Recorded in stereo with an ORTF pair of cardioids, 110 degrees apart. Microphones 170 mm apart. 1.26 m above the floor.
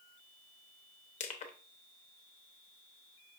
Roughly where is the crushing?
Ahead left.